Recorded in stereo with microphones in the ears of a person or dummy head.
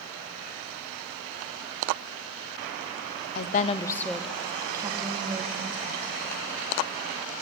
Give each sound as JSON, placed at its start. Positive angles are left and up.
{"t": 3.4, "sound": "a woman speaking", "side_deg": 55, "distance_m": 1.0}